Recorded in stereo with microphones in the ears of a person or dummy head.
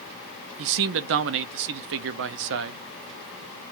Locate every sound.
0.6 s a man speaking: 65° right (ahead or behind), 0.6 m